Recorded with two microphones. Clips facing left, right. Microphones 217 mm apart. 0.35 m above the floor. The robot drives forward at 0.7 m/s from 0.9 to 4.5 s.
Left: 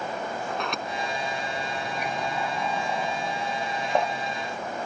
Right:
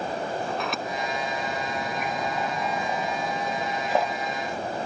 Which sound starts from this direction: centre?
A sliding door, at 0.5 s.